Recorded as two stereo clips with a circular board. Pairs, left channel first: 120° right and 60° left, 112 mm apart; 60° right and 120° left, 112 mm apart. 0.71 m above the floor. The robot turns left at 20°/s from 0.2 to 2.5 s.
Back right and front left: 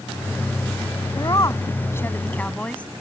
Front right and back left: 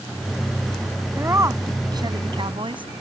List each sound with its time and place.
1.1 s a woman speaking: 170° right; by 2.9 s 160° left